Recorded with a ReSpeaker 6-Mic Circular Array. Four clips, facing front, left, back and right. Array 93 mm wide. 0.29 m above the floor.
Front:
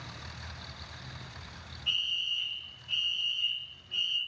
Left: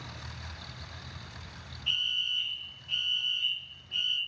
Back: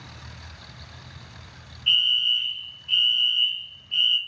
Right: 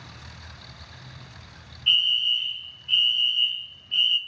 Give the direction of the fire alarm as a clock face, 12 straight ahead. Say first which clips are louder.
Right 10 dB, back 11 dB; 4 o'clock.